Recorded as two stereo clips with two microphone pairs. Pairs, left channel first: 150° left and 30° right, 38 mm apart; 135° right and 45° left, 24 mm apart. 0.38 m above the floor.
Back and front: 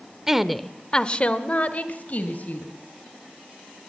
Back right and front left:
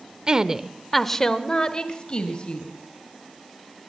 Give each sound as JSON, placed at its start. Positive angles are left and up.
{"t": 0.3, "sound": "a woman speaking", "azimuth_deg": 35, "distance_m": 0.9}